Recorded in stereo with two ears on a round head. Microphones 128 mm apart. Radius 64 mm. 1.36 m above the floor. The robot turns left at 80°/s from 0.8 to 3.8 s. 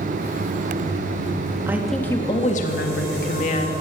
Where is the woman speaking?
160° right, 1.9 m; by 3.7 s 35° left, 1.9 m.